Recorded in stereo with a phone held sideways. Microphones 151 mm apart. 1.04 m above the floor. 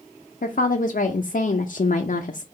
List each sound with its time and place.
0.4 s a woman speaking: 65° left (ahead or behind), 0.5 m